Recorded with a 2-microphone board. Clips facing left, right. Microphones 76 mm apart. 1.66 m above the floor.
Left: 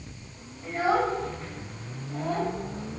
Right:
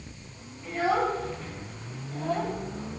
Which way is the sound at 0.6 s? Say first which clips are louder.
Left 1 dB; 30° left (ahead or behind).